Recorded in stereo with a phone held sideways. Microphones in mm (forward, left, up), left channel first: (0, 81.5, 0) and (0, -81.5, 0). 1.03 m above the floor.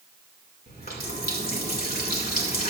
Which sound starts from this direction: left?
A running tap, at 0.7 s.